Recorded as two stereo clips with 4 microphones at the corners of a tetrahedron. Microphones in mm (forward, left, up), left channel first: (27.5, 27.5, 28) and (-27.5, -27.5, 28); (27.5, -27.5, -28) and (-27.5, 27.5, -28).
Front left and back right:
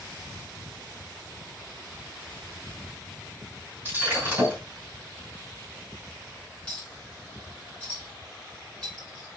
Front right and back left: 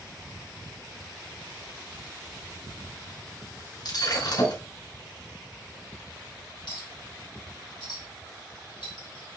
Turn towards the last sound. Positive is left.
turn(degrees=-30)